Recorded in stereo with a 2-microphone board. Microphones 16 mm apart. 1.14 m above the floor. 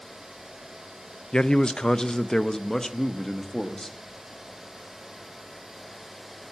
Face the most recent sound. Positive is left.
turn(degrees=25)  # may be behind; listen again after turning